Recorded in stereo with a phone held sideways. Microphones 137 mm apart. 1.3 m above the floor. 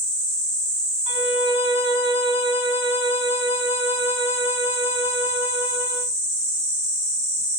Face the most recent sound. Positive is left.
turn(degrees=50)  # may be behind; listen again after turning